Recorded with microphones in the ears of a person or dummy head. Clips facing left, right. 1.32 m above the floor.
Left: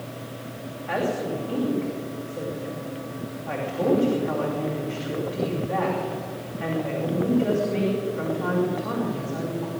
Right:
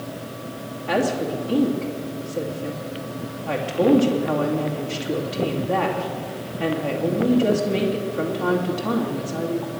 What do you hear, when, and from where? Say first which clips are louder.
0.9 s a woman speaking: right 4 dB; 55° right (ahead or behind), 2.5 m